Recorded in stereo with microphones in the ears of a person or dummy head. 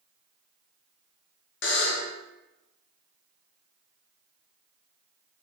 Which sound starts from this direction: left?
A buzzer, at 1.6 s.